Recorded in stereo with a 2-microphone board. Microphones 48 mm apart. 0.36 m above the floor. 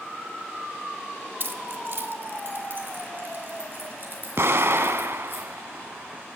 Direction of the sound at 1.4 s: 50° right (ahead or behind).